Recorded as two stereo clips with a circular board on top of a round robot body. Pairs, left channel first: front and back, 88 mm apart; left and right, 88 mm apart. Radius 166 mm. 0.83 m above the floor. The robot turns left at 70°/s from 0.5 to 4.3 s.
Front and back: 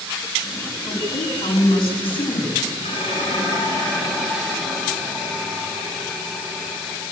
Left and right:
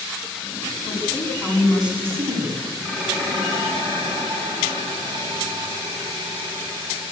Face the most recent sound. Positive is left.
turn(degrees=-100)